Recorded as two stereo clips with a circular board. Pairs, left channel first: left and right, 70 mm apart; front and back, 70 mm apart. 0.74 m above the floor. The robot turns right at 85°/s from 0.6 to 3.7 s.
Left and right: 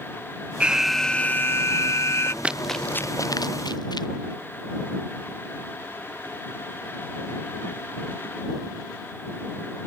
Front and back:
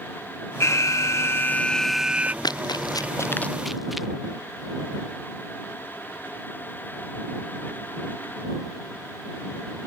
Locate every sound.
0.6 s an alarm: 25° right; by 2.3 s 125° left
2.4 s running footsteps: 20° right; by 4.1 s 95° left